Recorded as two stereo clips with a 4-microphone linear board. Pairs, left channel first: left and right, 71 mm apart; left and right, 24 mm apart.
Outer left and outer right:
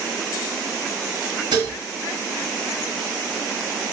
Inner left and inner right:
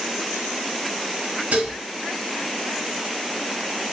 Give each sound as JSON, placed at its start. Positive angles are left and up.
{"t": 1.5, "sound": "dishes clattering", "side_deg": -80, "distance_m": 0.7}